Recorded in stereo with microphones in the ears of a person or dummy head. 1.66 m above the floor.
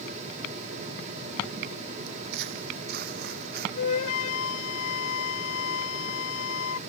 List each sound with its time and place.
2.1 s footsteps: 60° right (ahead or behind)
3.8 s a flute: 80° left